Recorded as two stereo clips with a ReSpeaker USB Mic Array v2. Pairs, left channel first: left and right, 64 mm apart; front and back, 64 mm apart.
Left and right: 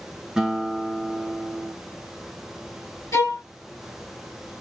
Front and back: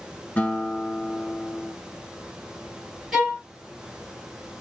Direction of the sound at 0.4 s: 25° right.